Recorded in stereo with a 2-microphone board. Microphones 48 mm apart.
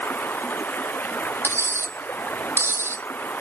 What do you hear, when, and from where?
0.0 s running water: 40° left (ahead or behind)
1.4 s cutlery clinking: 60° right (ahead or behind)